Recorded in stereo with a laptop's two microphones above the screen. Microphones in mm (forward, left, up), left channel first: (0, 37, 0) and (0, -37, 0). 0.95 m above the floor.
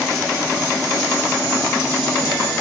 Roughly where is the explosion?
I don't hear an explosion.